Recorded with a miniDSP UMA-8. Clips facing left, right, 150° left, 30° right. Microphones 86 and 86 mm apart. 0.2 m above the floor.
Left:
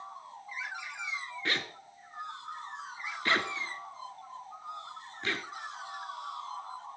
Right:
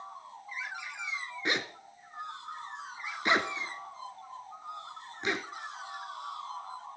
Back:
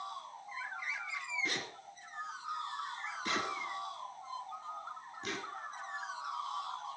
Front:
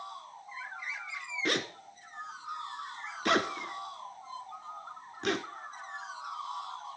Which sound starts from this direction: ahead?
A zipper, at 1.4 s.